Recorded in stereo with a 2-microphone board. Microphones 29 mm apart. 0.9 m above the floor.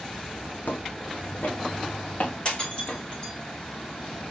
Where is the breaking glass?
35° left (ahead or behind), 5 m.